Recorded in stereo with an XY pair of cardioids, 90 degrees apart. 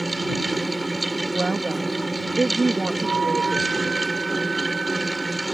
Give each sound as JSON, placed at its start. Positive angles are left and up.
{"t": 0.0, "sound": "a fan", "azimuth_deg": -15}
{"t": 1.3, "sound": "a woman speaking", "azimuth_deg": -25}
{"t": 3.0, "sound": "a flute", "azimuth_deg": -35}